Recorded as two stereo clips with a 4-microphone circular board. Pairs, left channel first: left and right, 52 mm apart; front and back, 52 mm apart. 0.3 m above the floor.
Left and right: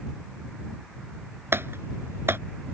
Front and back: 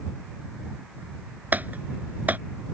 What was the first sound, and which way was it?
Typing on a keyboard, 125° right.